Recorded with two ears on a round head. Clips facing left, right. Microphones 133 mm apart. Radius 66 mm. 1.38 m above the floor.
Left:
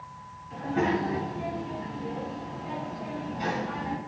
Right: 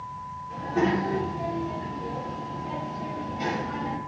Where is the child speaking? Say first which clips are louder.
Right 2 dB; 55° right (ahead or behind), 4 m; by 4.0 s 30° right (ahead or behind), 2.5 m.